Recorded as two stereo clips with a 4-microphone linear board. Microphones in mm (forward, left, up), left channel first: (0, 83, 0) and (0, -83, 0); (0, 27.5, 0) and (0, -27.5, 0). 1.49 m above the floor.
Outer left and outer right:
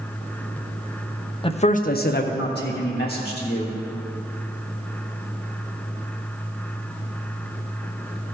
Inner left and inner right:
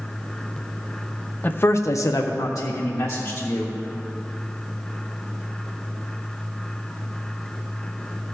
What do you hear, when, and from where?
1.4 s a man speaking: 30° left (ahead or behind), 0.6 m; by 3.8 s 60° left (ahead or behind), 1.6 m